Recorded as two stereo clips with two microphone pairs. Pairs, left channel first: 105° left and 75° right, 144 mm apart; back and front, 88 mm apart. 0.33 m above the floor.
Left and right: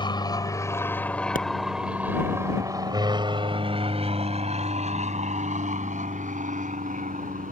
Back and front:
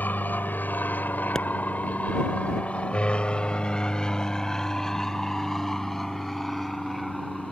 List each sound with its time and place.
0.0 s an aircraft: 130° left; by 7.5 s 90° right
1.4 s a pop: 95° left